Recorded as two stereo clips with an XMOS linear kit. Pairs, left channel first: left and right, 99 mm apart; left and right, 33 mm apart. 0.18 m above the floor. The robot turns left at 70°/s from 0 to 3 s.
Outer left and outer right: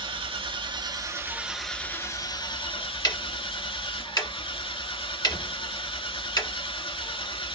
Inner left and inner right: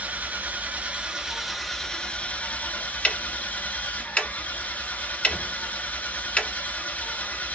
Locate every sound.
0.0 s an engine running: 65° right, 0.9 m; by 7.6 s 85° left, 0.9 m
3.0 s ticking: 45° left (ahead or behind), 1.2 m